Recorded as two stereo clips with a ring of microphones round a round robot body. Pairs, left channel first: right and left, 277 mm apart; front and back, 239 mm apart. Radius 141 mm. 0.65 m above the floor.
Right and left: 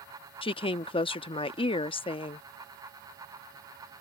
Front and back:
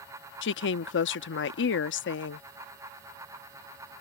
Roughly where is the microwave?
I don't hear a microwave.